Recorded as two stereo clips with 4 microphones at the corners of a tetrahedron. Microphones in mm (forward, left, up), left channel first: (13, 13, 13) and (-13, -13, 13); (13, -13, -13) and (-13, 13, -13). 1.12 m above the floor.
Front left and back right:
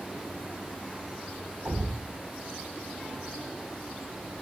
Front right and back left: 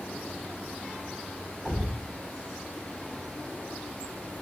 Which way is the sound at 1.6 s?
170° right.